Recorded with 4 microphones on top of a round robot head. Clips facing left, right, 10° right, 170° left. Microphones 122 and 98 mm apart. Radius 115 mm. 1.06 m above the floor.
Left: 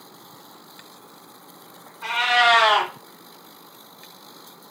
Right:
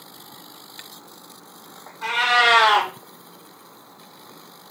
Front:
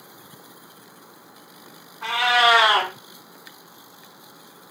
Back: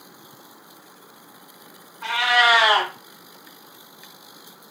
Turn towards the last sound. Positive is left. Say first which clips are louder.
# even, front 1 dB
turn(degrees=-65)